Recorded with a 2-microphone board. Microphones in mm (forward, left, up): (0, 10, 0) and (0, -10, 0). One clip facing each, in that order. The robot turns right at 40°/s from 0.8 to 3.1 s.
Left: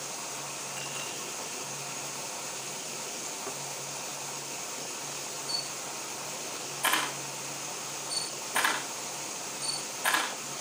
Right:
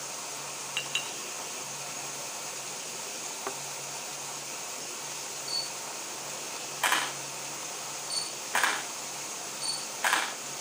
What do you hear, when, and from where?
0.8 s a clink: 50° right (ahead or behind), 2.5 m; by 1.2 s 60° right (ahead or behind), 2.5 m
3.5 s a thud: 40° right (ahead or behind), 0.5 m
5.5 s a camera shutter: 60° right (ahead or behind), 8 m